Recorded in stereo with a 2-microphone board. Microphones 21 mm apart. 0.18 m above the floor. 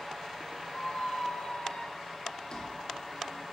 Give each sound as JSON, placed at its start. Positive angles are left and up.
{"t": 0.7, "sound": "a squeak", "side_deg": 50, "distance_m": 1.2}